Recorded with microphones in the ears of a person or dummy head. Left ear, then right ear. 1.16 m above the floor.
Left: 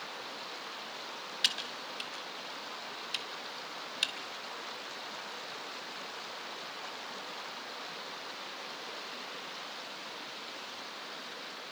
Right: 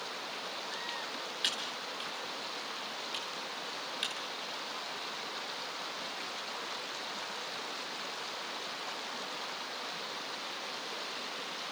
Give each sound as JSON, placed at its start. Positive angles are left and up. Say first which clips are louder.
{"t": 1.4, "sound": "typing on a keyboard", "louder": "left 3 dB", "side_deg": 35, "distance_m": 1.8}